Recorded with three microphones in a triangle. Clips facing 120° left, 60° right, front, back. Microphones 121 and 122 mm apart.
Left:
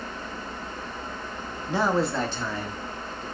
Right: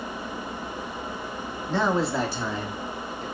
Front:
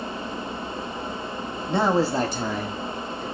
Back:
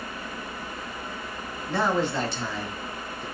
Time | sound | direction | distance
1.7 | a man speaking | 55° left | 0.8 m